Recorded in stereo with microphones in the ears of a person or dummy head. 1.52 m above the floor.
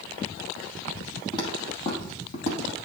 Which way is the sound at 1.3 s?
25° left (ahead or behind).